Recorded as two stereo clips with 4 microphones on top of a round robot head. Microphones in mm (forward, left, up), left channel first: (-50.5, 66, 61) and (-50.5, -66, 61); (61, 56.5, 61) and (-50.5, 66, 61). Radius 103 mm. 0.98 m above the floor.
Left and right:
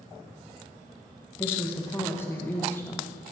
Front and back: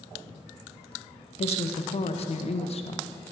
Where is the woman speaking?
15° left, 0.6 m.